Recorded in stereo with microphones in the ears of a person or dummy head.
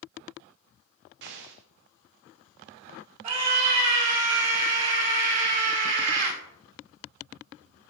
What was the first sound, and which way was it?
An explosion, 60° right (ahead or behind).